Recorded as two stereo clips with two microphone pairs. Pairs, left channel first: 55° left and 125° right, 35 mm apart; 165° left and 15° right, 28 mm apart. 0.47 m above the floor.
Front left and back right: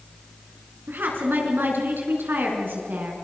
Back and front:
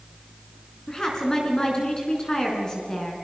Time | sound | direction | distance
0.9 | a woman speaking | 130° right | 5 m